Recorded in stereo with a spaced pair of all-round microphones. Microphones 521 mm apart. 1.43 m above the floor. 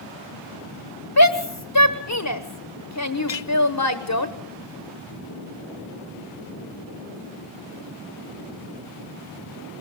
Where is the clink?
55° left (ahead or behind), 0.6 m.